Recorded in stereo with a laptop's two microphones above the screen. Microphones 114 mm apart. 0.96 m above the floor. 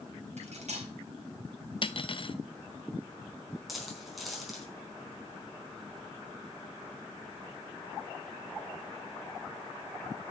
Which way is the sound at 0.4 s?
80° right.